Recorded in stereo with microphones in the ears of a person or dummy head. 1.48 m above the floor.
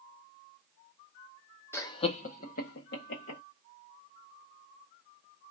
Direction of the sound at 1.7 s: 15° left (ahead or behind).